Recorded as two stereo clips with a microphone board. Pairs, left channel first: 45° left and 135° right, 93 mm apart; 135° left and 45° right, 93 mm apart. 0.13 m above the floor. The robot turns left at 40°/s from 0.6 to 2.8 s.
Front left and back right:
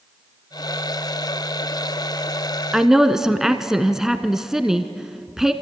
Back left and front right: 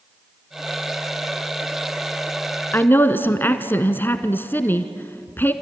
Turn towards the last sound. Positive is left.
turn(degrees=150)